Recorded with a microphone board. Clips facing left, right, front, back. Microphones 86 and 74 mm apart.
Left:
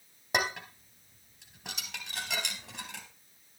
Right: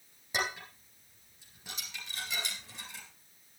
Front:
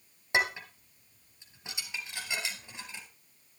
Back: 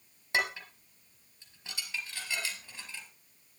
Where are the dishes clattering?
70° left, 3 m.